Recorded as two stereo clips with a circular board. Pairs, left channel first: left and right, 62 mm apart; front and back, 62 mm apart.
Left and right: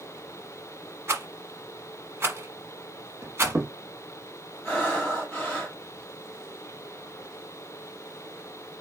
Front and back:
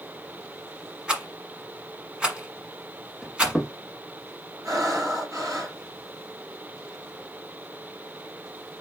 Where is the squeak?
100° right, 0.9 m.